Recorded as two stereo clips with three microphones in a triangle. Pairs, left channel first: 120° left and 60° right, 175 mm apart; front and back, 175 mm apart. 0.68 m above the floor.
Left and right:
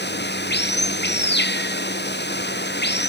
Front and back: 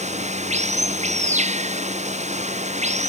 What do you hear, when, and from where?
0.0 s running water: 130° left